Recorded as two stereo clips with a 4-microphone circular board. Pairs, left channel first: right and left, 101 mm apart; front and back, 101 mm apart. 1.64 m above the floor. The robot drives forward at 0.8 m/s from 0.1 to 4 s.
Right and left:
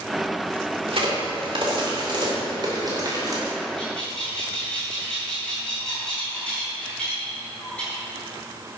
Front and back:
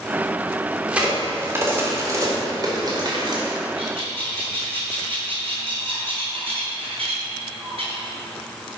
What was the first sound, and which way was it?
A crack, 100° left.